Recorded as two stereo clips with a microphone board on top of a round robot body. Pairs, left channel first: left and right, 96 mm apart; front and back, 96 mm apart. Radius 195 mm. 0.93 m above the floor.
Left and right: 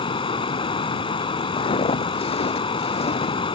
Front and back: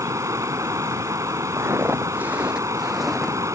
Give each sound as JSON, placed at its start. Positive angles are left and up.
{"t": 0.0, "sound": "running water", "azimuth_deg": 125}
{"t": 1.6, "sound": "footsteps", "azimuth_deg": 120}